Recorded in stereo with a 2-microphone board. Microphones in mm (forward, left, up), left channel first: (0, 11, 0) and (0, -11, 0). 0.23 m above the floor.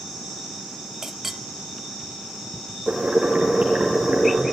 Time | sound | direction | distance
1.0 | a clink | 20° right (ahead or behind) | 0.6 m
2.9 | boiling | 65° right (ahead or behind) | 5.5 m